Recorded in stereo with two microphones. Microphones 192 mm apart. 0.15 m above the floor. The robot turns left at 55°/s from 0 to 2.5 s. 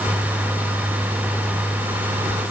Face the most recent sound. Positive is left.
No sound to turn to.